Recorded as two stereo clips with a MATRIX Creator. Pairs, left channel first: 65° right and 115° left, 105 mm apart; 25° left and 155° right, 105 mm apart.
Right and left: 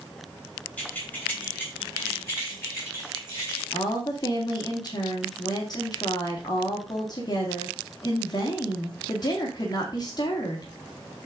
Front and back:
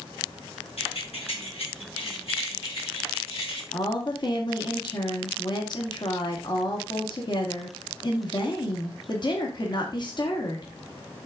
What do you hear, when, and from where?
0.8 s keys jangling: 10° left, 4 m; by 3.6 s 10° right, 5.5 m
3.7 s a woman speaking: 20° right, 2 m